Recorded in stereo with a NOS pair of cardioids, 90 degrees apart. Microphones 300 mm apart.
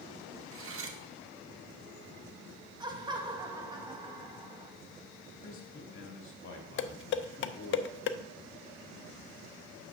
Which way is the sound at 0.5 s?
50° right.